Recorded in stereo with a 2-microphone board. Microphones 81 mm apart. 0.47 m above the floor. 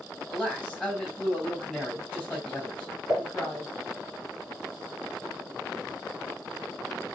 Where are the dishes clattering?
35° left (ahead or behind), 4 m.